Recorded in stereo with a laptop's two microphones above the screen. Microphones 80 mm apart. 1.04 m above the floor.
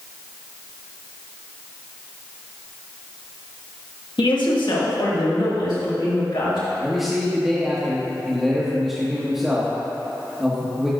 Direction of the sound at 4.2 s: 80° left.